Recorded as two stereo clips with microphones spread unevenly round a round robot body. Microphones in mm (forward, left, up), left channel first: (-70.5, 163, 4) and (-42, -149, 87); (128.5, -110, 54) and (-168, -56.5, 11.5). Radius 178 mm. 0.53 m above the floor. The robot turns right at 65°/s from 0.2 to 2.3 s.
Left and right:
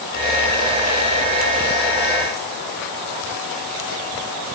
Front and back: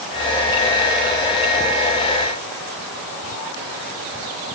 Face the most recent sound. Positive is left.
No sound to turn to.